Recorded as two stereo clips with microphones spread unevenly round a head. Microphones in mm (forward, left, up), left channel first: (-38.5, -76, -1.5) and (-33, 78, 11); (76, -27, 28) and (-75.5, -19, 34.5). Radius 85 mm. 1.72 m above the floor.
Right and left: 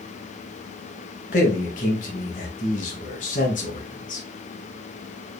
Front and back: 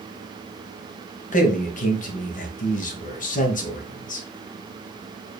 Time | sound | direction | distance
1.3 | a man speaking | 40° right | 1.1 m